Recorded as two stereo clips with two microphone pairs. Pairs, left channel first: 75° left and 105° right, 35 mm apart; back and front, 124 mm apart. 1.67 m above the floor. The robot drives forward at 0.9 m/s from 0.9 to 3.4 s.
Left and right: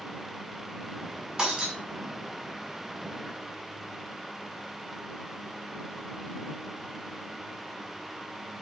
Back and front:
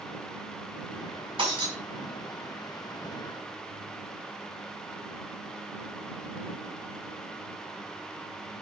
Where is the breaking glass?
45° right, 6 m.